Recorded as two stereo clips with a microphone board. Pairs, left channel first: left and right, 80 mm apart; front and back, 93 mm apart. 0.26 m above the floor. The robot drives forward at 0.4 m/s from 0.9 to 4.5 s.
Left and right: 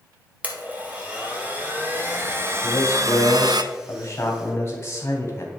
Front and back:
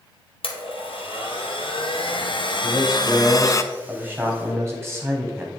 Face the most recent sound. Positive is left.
turn(degrees=130)